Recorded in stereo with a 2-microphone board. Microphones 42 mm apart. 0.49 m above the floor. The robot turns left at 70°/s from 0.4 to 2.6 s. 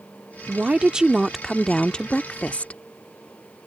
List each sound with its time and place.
0.5 s a woman speaking: 110° right; by 2.8 s 100° left